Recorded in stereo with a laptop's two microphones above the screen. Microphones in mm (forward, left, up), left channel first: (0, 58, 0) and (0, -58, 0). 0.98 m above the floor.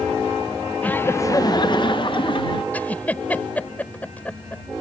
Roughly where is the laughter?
Centre.